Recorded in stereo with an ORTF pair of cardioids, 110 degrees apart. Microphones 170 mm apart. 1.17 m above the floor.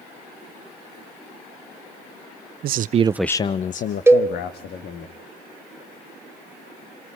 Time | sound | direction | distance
2.6 | a man speaking | 70° right | 0.9 m
4.1 | a cowbell | 15° right | 1.2 m